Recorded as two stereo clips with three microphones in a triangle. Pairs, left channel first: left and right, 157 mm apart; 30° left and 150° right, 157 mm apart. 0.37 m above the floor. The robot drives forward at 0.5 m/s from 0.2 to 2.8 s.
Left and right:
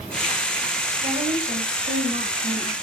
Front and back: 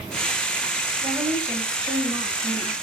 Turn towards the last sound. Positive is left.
turn(degrees=-100)